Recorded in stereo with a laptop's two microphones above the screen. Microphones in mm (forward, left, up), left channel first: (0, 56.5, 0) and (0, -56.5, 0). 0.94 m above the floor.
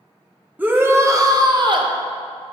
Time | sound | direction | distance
0.6 | a shout | 15° right (ahead or behind) | 0.9 m